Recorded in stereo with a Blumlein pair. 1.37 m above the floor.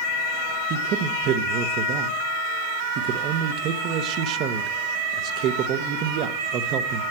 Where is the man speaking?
40° right, 0.8 m.